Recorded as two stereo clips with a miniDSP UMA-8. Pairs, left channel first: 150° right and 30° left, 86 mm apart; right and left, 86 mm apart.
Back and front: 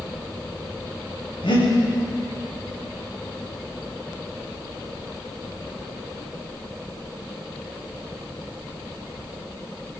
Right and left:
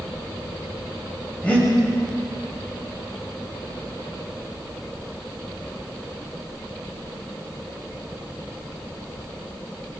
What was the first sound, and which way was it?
Breathing, 165° right.